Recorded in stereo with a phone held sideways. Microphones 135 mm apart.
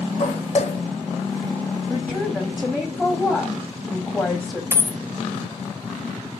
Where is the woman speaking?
5° left (ahead or behind), 1.3 m.